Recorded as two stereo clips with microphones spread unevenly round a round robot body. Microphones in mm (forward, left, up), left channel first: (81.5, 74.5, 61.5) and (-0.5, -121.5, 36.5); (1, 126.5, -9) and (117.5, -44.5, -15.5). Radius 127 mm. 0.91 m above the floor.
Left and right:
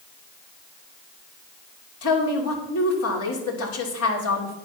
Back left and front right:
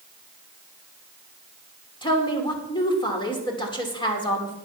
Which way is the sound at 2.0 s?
55° left.